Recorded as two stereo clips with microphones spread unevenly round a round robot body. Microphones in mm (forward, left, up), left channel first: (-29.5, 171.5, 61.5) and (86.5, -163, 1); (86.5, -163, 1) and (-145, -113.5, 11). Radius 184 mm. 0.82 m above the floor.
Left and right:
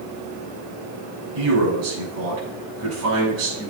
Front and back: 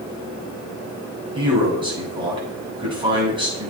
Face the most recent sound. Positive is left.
turn(degrees=-120)